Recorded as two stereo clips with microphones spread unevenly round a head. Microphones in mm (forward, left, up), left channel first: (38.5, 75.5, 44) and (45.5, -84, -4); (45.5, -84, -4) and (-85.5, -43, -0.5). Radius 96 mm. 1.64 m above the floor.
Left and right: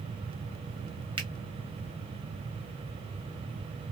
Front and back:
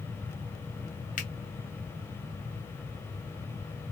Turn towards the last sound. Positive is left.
turn(degrees=-20)